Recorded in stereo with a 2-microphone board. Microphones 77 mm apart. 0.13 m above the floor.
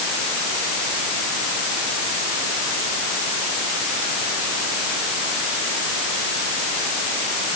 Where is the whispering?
No whispering in this recording.